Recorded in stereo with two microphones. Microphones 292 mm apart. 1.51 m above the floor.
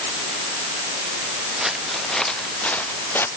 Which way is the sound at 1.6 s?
Centre (ahead or behind).